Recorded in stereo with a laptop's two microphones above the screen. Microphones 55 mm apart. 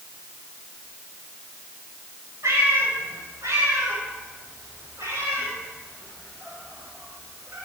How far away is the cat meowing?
About 4.5 m.